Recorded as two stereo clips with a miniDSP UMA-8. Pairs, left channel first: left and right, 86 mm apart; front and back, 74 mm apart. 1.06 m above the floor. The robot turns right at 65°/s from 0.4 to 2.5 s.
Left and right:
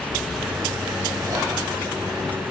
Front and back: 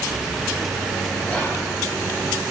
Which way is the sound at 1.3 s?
70° right.